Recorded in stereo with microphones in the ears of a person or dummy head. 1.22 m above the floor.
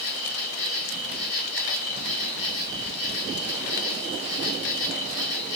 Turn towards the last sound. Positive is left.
turn(degrees=75)  # may be behind; listen again after turning